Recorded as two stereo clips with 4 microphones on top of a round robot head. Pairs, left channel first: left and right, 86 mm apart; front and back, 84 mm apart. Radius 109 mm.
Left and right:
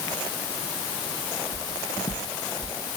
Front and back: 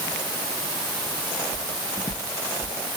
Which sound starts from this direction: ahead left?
Footsteps, at 1.5 s.